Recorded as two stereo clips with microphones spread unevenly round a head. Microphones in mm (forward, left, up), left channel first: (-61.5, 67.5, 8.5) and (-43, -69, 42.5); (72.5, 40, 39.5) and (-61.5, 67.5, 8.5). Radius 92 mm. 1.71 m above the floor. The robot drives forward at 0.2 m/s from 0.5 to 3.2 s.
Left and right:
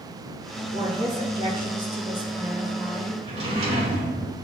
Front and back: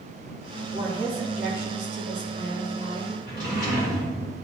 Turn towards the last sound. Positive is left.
turn(degrees=-115)